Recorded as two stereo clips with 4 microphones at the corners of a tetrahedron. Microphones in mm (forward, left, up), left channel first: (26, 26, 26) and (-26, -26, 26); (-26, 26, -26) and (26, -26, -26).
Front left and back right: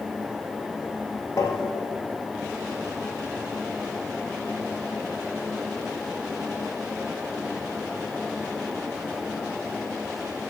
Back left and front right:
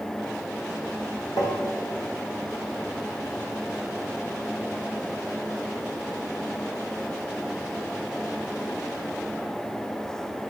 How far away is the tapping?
About 2.5 m.